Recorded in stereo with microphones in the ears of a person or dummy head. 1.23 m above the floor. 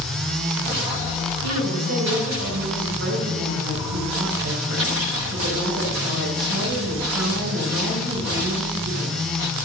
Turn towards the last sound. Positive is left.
turn(degrees=-85)